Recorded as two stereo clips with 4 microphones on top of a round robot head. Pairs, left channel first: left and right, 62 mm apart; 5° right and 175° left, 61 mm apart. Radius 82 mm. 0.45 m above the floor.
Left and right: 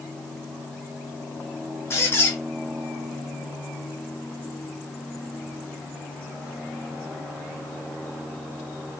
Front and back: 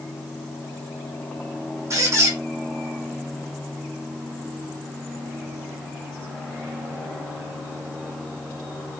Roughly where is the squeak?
Behind left.